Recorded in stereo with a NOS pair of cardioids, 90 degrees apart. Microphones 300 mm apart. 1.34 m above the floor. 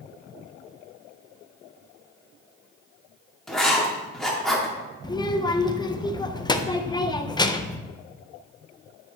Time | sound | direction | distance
3.5 | writing | straight ahead | 2 m
5.0 | a child speaking | 15° left | 0.7 m